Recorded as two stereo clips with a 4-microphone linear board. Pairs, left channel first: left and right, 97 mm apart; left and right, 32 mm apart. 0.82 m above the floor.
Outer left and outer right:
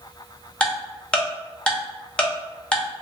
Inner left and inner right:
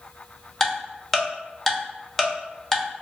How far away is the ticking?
About 0.8 m.